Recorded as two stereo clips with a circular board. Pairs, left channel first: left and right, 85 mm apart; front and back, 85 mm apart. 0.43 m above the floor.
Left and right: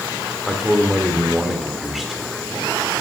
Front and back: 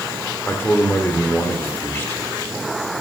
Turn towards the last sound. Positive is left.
turn(degrees=-5)